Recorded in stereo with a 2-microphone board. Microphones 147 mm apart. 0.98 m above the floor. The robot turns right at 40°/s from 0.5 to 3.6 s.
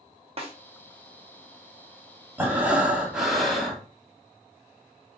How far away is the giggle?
No giggle in this recording.